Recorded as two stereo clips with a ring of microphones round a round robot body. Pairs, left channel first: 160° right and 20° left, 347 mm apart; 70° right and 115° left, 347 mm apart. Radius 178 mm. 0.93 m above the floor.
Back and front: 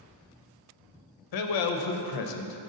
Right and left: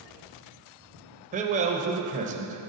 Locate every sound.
1.3 s a man speaking: straight behind, 0.7 m